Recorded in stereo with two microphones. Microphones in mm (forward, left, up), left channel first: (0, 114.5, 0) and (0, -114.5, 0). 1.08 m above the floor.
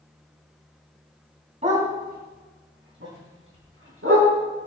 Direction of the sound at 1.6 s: 30° right (ahead or behind).